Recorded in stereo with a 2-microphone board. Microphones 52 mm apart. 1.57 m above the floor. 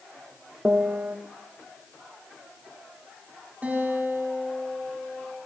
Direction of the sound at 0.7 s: 30° right (ahead or behind).